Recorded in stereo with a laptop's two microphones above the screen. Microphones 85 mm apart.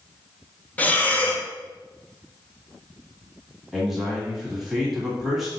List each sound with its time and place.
0.8 s breathing: 15° left (ahead or behind), 0.6 m
3.7 s a man speaking: 5° right (ahead or behind), 1.4 m